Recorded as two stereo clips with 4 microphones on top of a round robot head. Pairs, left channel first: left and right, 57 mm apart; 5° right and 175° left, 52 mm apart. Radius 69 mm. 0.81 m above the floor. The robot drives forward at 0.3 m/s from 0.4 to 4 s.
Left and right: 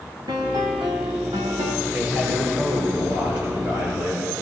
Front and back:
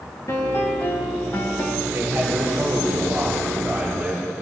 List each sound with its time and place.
0.3 s a piano: 60° right, 1.3 m; by 1.8 s 80° right, 1.2 m
1.9 s a man speaking: 125° right, 5 m; by 4.4 s 130° right, 5.5 m